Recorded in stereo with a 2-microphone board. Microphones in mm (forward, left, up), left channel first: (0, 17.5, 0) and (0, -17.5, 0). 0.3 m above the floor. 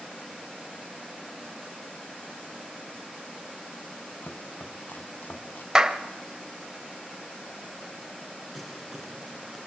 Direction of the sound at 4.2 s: 65° left (ahead or behind).